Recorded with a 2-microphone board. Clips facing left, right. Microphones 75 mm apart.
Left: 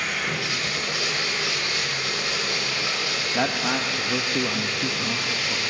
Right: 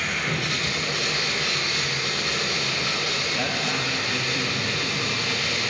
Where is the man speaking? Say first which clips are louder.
Left 6 dB; 65° left (ahead or behind), 1.4 m.